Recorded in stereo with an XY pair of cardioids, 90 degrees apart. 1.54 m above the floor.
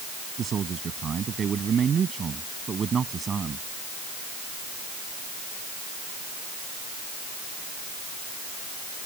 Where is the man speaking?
60° right; by 3.6 s 45° right.